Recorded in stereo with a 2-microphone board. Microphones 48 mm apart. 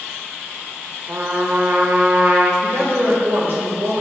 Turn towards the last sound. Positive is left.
turn(degrees=-50)  # may be behind; listen again after turning